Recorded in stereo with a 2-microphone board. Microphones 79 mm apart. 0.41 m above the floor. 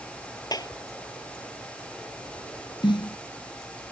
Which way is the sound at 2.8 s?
75° left (ahead or behind).